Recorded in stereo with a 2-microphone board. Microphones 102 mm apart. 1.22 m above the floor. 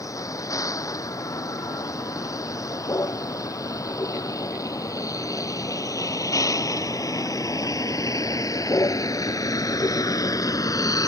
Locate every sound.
0.0 s a vehicle: 35° left (ahead or behind)